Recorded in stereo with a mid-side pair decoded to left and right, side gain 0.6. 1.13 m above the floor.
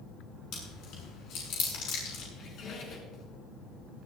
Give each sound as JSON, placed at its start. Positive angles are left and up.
{"t": 0.5, "sound": "chewing", "azimuth_deg": 65, "distance_m": 6.5}
{"t": 2.3, "sound": "a squeak", "azimuth_deg": 50, "distance_m": 4.0}